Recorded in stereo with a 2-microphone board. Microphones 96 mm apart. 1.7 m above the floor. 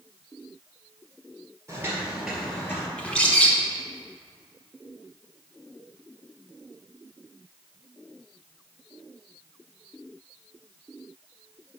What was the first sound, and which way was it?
Footsteps, 30° right (ahead or behind).